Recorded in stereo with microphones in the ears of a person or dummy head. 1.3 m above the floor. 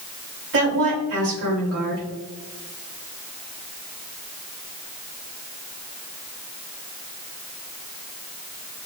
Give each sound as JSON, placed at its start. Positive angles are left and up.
{"t": 0.5, "sound": "a woman speaking", "side_deg": -60, "distance_m": 1.9}